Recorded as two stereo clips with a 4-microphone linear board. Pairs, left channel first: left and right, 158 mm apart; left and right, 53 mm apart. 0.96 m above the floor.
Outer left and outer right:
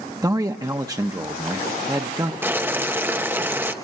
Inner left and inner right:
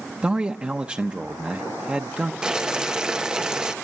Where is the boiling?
15° right (ahead or behind), 1.0 m.